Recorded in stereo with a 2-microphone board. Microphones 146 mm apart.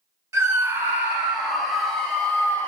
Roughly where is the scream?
Right.